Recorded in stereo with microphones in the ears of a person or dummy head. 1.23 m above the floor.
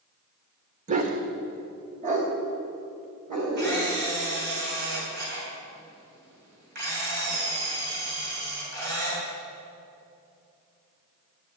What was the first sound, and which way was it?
A dog barking, 40° right (ahead or behind).